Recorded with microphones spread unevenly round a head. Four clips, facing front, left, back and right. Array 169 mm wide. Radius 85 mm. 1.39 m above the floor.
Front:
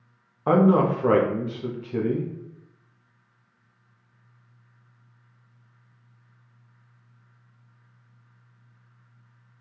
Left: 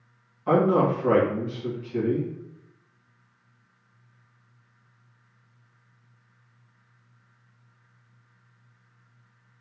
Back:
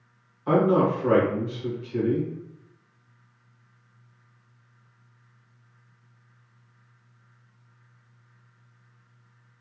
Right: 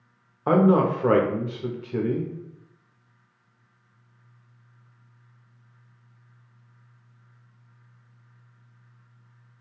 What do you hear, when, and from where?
0.5 s a man speaking: 50° right, 0.6 m